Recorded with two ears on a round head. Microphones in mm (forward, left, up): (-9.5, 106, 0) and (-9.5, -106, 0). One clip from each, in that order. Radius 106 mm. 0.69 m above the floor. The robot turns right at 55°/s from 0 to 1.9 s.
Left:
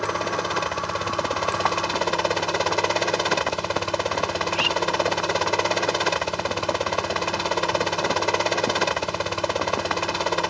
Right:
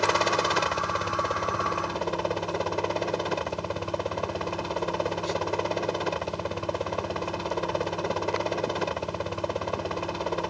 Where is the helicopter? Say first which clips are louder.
Right 2 dB; 40° right; by 10.5 s 65° left.